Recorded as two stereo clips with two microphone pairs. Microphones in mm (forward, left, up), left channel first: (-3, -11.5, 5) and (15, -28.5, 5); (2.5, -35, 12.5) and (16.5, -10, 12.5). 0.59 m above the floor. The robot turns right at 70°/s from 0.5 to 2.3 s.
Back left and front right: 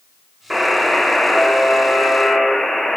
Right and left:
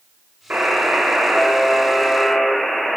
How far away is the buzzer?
About 0.6 m.